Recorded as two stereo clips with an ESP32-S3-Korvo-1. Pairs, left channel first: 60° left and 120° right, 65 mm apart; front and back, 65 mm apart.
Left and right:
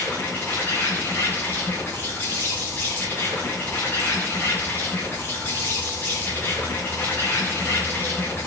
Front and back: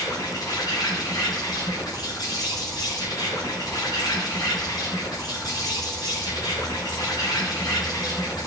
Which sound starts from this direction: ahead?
An insect, at 0.0 s.